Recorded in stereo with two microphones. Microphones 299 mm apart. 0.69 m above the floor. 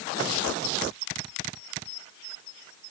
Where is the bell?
I don't hear a bell.